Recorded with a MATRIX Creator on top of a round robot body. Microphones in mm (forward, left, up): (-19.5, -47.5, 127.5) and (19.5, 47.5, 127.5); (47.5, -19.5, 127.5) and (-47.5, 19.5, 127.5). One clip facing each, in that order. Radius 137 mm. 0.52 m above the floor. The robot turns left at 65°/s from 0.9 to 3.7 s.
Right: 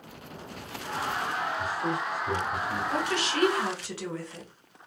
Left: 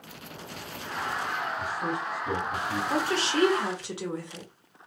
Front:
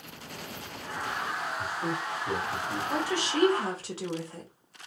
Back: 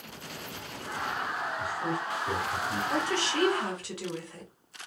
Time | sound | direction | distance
1.6 | a man speaking | 85° left | 2 m
2.9 | a woman speaking | 60° left | 1.0 m